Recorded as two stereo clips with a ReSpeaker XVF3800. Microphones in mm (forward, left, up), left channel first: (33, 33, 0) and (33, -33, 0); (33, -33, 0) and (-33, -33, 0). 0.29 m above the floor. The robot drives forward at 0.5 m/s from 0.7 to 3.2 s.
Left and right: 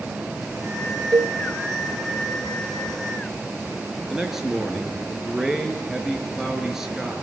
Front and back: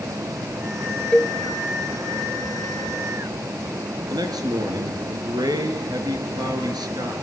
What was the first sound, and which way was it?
A cowbell, 70° right.